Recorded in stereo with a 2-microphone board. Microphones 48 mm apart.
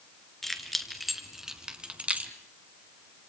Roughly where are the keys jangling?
Centre.